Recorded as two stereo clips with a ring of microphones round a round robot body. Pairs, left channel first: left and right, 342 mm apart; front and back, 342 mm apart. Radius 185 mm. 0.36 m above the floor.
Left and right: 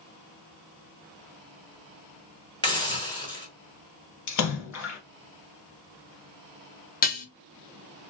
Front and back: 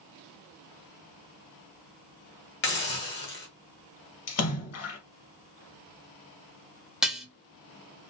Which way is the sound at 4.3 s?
50° left.